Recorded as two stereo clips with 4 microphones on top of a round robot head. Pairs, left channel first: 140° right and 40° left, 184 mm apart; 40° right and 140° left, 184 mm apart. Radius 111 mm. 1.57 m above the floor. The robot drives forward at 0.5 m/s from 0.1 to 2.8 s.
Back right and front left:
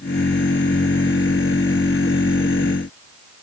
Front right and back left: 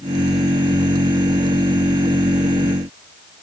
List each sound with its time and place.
Only background noise.